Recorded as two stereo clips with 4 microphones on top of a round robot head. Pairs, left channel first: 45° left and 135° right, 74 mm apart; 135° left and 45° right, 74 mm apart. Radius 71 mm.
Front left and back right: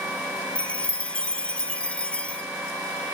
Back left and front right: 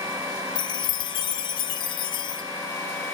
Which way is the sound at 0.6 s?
120° left.